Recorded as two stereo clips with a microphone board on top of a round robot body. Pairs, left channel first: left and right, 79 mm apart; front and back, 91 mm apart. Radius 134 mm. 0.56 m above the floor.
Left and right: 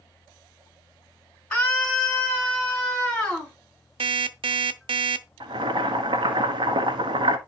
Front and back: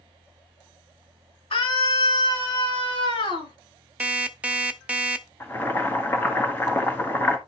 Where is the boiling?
70° right, 1.5 m.